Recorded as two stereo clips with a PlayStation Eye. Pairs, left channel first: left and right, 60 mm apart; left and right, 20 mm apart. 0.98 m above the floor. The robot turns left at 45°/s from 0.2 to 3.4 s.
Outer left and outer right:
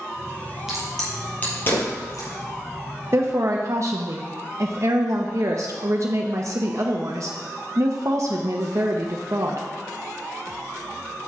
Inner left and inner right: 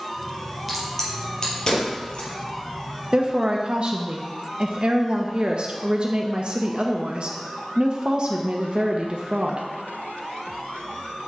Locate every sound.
0.7 s a crack: 5° right (ahead or behind), 3.5 m; by 2.3 s 60° left (ahead or behind), 3.5 m
3.1 s a woman speaking: 45° right (ahead or behind), 0.8 m; by 9.7 s 55° right (ahead or behind), 0.8 m